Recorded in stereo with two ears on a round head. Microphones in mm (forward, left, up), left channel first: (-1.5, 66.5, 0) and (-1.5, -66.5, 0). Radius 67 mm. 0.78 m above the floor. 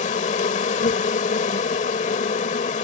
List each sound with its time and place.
0.0 s an insect: 50° left (ahead or behind)